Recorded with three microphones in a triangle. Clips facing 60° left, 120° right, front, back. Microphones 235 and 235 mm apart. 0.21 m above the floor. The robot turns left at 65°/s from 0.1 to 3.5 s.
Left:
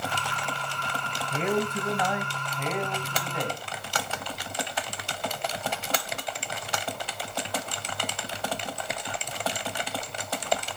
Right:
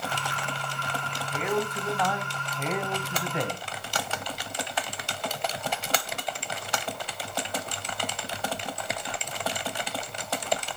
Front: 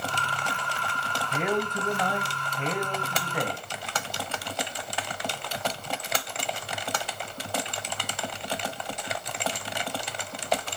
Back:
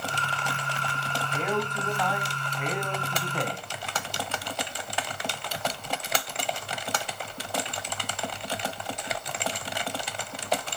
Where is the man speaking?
60° left, 1.3 m; by 3.6 s 80° right, 1.3 m.